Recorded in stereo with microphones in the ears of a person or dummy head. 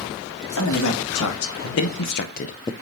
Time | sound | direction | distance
0.5 | a man speaking | 80° left | 2 m